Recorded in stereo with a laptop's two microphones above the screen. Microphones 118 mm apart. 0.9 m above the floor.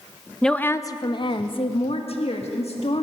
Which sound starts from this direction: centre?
A woman speaking, at 0.4 s.